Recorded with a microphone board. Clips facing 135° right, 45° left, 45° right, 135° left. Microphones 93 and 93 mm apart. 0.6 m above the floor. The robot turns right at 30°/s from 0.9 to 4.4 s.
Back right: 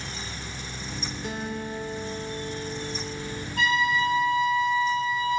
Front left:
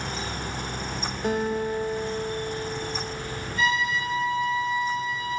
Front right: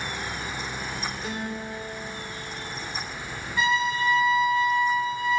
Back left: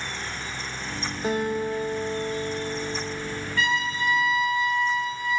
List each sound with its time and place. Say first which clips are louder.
1.2 s a guitar: front left 9 dB, back left 7 dB; 85° left, 1.1 m; by 3.5 s 150° left, 1.1 m
3.6 s a trumpet: back right 2 dB, front right 3 dB; 115° right, 5 m; by 5.4 s 90° right, 5 m